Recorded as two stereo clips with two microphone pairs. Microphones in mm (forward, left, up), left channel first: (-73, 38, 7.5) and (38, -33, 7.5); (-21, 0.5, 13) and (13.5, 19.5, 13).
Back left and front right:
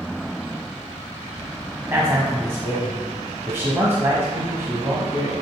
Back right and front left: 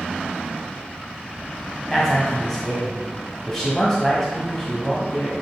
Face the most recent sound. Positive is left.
turn(degrees=-85)